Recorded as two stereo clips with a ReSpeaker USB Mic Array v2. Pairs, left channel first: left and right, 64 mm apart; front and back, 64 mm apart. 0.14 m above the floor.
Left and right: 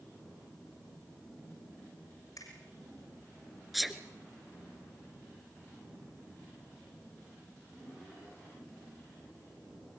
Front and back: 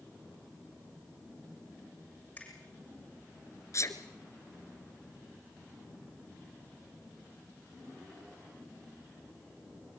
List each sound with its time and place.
2.4 s a finger snap: 65° left, 7.5 m
3.7 s a sneeze: straight ahead, 1.8 m